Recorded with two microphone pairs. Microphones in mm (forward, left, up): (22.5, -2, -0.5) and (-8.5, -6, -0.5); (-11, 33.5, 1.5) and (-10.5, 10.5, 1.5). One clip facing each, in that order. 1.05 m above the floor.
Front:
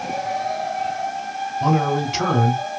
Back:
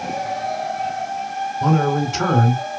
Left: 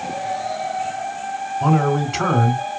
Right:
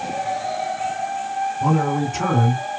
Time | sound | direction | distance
1.6 | a man speaking | 90° left | 3 m